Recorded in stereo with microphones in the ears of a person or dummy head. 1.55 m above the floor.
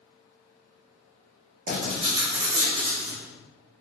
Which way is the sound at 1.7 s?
45° right (ahead or behind).